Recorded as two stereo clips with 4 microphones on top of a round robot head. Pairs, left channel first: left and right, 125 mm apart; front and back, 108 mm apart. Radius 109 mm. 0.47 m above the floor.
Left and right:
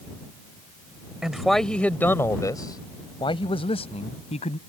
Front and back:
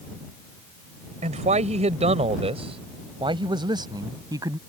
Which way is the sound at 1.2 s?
175° right.